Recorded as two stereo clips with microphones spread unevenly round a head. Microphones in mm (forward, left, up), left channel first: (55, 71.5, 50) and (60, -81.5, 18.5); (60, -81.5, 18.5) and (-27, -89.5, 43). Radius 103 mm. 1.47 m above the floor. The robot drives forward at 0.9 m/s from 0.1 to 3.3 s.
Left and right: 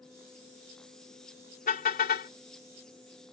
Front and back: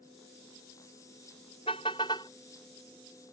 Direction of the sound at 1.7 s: 70° left.